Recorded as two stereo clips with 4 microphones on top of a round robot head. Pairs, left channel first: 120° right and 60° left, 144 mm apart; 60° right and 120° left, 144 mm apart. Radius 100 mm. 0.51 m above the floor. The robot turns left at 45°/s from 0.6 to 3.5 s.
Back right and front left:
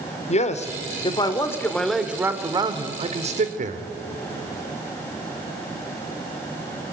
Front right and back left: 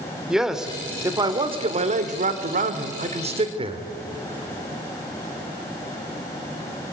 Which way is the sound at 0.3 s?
155° right.